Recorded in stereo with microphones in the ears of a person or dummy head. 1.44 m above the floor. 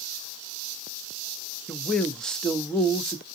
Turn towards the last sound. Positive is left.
turn(degrees=5)  # may be behind; listen again after turning